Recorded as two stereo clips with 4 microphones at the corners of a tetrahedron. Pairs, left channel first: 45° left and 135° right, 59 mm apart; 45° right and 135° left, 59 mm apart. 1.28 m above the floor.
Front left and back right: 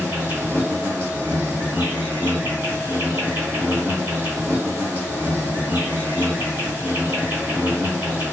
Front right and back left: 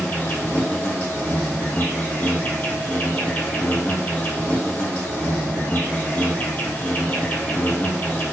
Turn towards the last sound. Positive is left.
turn(degrees=-100)